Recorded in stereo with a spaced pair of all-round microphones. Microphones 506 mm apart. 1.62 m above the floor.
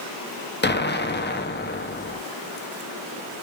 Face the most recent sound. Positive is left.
turn(degrees=20)  # may be behind; listen again after turning